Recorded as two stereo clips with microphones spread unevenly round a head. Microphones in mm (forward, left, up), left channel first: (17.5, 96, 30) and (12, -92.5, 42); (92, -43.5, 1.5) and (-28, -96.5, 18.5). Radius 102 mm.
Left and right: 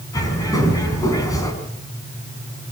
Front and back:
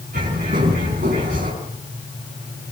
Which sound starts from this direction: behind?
A bird, at 0.1 s.